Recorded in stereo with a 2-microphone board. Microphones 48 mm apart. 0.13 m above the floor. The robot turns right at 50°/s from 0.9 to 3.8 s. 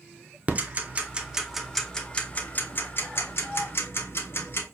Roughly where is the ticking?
Right.